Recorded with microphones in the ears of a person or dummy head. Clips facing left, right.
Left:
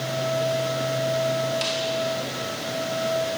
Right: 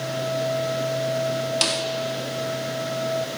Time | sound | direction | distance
1.6 | a snare drum | 55° right (ahead or behind) | 2 m